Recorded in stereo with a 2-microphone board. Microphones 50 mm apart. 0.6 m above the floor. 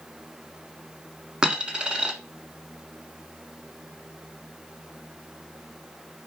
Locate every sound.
1.4 s a dropped coin: 15° right (ahead or behind), 1.3 m